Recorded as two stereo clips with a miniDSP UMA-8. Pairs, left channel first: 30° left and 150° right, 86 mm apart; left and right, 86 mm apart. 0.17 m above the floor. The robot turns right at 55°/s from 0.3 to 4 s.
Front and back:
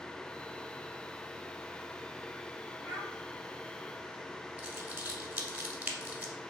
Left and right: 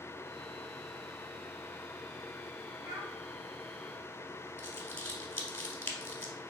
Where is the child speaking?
75° right, 1.8 m; by 3.1 s 60° right, 1.8 m.